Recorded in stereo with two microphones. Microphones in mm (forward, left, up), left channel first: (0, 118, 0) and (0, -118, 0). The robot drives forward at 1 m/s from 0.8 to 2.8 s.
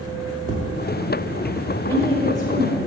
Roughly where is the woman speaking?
Centre.